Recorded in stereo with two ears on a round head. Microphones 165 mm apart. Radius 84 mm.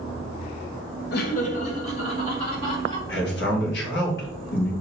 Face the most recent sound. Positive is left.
turn(degrees=60)  # may be behind; listen again after turning